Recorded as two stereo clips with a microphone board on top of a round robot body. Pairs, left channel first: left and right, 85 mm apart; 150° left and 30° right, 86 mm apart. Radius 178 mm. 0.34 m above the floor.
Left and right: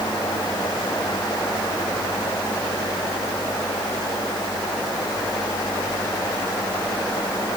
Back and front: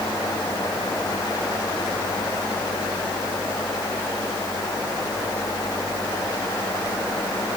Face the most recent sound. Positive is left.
No sound to turn to.